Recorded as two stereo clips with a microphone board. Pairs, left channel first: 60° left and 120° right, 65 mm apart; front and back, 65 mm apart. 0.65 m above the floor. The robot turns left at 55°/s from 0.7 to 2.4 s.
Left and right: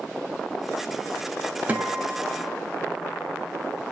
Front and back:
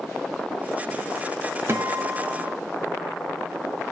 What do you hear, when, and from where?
1.7 s a guitar: 170° right, 0.5 m; by 2.6 s 150° left, 0.5 m